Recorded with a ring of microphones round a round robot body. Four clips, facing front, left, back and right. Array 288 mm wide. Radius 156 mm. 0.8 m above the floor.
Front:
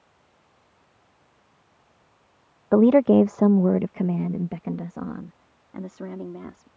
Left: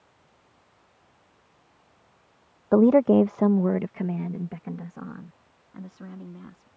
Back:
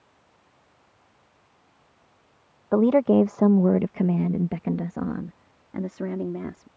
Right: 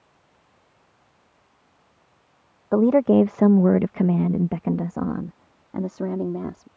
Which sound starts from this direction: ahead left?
A woman speaking, at 2.7 s.